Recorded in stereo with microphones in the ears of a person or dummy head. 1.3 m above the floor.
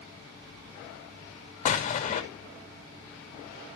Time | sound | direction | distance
1.6 | an explosion | 40° left (ahead or behind) | 2 m